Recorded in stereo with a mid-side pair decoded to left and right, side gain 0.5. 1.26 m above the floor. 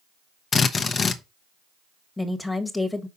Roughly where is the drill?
Ahead left.